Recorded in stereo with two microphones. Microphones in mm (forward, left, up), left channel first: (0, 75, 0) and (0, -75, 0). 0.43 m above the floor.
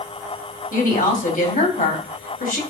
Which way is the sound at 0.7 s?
60° left (ahead or behind).